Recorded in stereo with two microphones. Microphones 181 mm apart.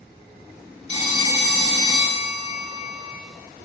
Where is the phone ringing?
40° left (ahead or behind), 0.8 m.